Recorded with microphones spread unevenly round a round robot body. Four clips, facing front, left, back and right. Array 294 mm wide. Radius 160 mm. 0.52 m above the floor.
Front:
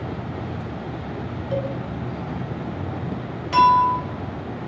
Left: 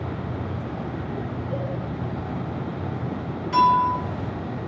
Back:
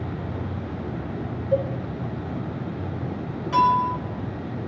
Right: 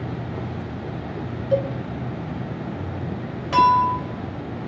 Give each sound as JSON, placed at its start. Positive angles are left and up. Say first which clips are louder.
{"t": 1.5, "sound": "a cowbell", "louder": "right 11 dB, back 3 dB", "azimuth_deg": -75, "distance_m": 1.6}
{"t": 3.5, "sound": "a clink", "louder": "right 2 dB, front 4 dB", "azimuth_deg": -105, "distance_m": 1.4}